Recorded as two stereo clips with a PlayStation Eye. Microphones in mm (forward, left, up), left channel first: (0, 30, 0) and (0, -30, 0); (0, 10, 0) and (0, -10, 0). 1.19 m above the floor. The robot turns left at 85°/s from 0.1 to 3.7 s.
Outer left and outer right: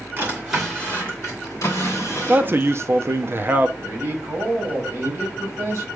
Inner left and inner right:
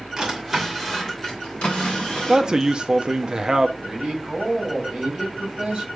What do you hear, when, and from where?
0.2 s a drawer: 35° right (ahead or behind), 2.5 m; by 3.3 s 50° right (ahead or behind), 2.5 m
2.3 s a man speaking: 30° right, 0.5 m; by 3.7 s 150° right, 0.5 m
3.8 s a man speaking: 65° right (ahead or behind), 3 m